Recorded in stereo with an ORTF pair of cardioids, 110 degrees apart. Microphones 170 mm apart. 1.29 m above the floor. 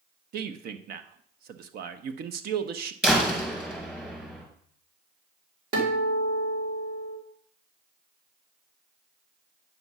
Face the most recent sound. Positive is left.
turn(degrees=-60)